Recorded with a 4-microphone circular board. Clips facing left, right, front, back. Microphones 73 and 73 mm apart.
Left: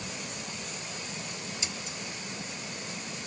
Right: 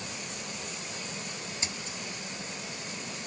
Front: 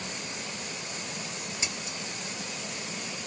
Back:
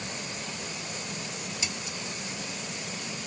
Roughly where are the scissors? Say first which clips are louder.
Even, even; ahead right.